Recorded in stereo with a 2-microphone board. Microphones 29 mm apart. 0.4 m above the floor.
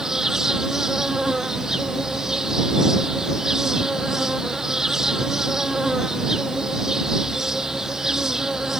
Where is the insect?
15° right (ahead or behind).